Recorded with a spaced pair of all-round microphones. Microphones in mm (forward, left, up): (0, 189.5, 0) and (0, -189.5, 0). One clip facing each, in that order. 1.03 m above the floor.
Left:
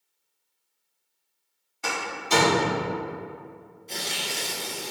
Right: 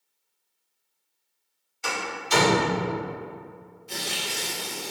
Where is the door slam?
60° left (ahead or behind), 2.0 m.